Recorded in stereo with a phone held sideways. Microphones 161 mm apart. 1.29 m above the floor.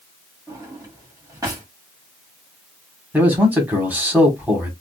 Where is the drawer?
20° right (ahead or behind), 1.1 m.